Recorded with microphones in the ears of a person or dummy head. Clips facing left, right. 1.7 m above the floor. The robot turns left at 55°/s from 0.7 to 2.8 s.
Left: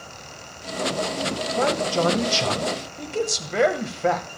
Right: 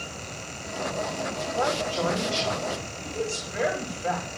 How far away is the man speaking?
About 2 m.